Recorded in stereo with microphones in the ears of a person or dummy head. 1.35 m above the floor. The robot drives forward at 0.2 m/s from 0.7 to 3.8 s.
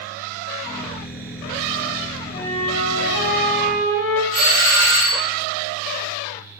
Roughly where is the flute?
Left.